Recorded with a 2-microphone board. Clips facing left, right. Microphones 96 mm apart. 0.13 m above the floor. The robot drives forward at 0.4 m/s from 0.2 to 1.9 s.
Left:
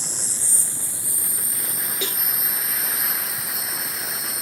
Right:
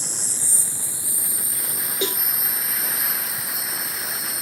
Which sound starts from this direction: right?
A cowbell, at 2.0 s.